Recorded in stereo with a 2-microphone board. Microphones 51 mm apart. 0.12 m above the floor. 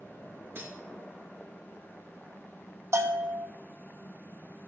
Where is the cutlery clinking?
45° right (ahead or behind), 1.2 m.